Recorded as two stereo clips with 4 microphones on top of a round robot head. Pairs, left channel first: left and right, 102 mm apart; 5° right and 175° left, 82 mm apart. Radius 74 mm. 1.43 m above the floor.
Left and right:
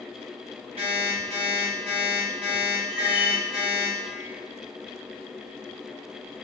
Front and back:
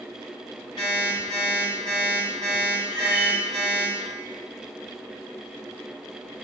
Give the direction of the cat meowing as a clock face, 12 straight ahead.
5 o'clock.